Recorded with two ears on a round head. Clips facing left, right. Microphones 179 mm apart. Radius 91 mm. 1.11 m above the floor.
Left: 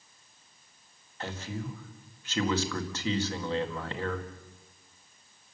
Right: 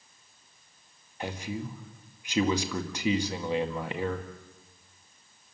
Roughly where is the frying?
No frying in this recording.